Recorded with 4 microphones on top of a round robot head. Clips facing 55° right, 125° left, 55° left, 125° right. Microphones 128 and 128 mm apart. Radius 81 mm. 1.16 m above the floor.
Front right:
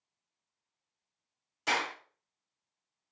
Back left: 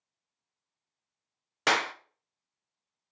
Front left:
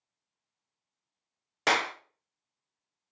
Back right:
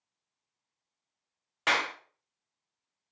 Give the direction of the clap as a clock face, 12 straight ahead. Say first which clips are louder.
Back left 5 dB, front left 3 dB; 8 o'clock.